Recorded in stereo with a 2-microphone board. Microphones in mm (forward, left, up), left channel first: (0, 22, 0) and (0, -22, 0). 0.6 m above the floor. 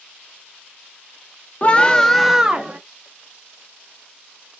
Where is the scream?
30° left (ahead or behind), 0.6 m; by 2.8 s 30° right (ahead or behind), 0.6 m.